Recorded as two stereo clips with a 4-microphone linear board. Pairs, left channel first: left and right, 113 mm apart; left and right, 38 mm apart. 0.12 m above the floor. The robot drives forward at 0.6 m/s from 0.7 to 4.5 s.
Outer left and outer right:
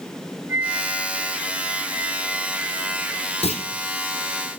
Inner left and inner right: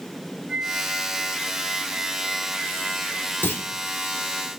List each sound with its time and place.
0.5 s a flute: 20° right (ahead or behind), 5.5 m; by 3.3 s 15° right (ahead or behind), 7 m
3.4 s a clunk: 70° left (ahead or behind), 1.1 m; by 3.6 s 65° left (ahead or behind), 1.2 m